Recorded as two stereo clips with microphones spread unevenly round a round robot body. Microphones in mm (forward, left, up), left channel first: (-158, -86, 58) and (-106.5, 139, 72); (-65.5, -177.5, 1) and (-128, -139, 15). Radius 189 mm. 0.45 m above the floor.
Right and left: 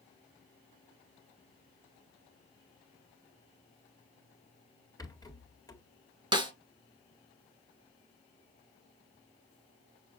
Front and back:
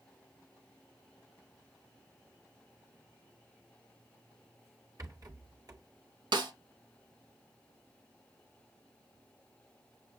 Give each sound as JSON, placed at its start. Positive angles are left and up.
{"t": 5.0, "sound": "a rattle", "azimuth_deg": -175, "distance_m": 1.9}
{"t": 6.3, "sound": "a snare drum", "azimuth_deg": 150, "distance_m": 1.5}